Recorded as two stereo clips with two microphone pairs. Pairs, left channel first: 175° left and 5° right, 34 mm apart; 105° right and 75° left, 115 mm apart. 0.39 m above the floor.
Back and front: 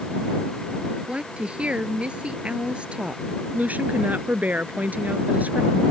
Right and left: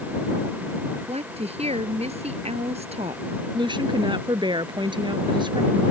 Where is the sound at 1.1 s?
50° left.